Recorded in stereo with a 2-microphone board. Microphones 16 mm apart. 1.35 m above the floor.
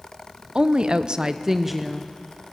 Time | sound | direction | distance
0.6 | a woman speaking | 60° right (ahead or behind) | 0.9 m